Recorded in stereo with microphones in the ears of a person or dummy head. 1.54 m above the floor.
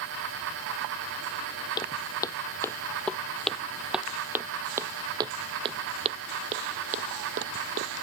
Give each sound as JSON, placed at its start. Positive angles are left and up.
{"t": 1.8, "sound": "footsteps", "side_deg": 25}